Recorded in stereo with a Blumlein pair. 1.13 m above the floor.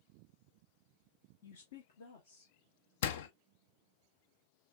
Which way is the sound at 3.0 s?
55° left.